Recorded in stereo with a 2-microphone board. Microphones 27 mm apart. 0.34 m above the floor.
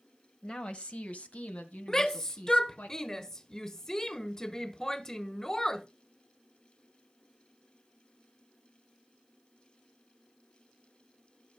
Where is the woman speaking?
30° left (ahead or behind), 1.2 m; by 2.9 s 75° left (ahead or behind), 3 m.